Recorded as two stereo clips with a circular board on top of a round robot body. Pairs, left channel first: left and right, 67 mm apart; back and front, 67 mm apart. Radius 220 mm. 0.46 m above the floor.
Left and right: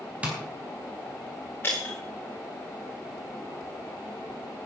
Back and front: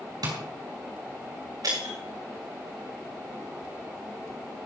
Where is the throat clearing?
I don't hear throat clearing.